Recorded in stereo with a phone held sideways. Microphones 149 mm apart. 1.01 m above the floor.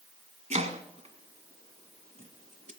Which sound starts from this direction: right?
Chopping, at 0.5 s.